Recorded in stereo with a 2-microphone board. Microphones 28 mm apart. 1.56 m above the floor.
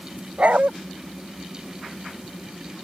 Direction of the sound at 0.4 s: 60° right (ahead or behind).